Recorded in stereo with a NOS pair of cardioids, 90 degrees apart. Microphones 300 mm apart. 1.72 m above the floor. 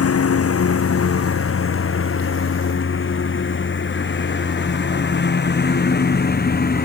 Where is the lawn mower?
50° left; by 6.9 s 30° left.